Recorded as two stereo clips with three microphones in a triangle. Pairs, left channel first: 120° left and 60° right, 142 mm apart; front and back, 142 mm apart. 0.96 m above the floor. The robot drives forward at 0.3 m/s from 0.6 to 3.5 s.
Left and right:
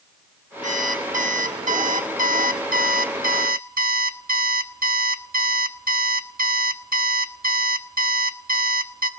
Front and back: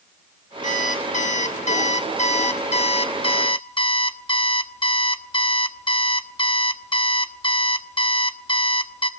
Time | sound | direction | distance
0.6 | an alarm clock | 30° right | 1.7 m